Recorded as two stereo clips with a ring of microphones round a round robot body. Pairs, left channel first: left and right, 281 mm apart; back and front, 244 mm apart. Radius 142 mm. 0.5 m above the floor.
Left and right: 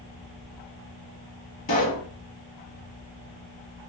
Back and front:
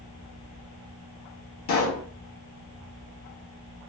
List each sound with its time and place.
1.7 s a pop: 155° left, 1.0 m